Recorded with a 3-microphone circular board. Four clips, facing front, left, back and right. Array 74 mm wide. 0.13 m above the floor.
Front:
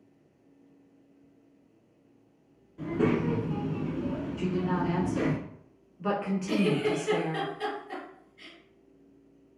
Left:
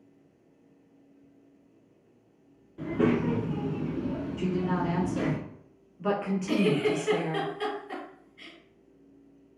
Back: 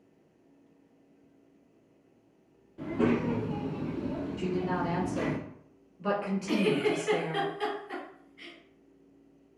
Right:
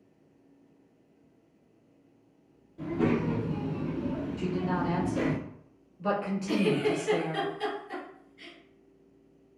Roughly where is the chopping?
I don't hear chopping.